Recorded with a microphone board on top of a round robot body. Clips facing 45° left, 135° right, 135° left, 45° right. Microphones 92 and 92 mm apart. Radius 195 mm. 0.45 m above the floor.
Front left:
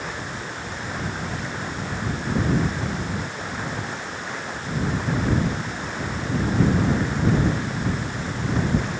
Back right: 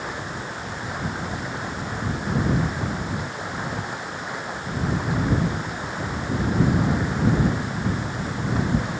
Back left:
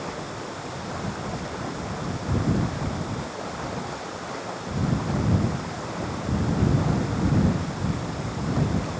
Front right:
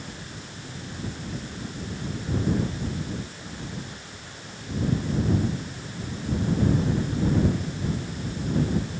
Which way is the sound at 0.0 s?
150° left.